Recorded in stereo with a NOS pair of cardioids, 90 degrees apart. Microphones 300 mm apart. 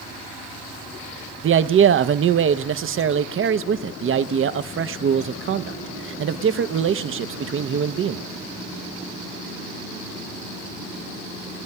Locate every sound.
1.4 s a man speaking: 45° right, 0.8 m